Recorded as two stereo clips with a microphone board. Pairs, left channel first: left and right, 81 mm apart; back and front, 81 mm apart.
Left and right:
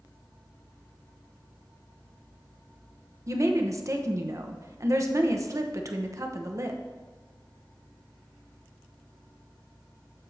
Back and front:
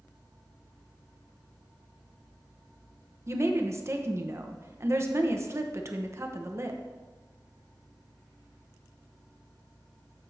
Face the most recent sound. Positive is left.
turn(degrees=-50)